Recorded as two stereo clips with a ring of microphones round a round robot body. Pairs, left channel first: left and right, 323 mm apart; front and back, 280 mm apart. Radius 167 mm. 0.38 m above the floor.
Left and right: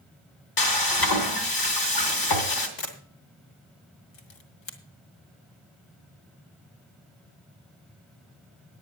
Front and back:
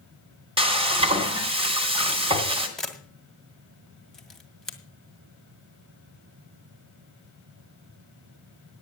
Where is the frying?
110° left, 2.5 m.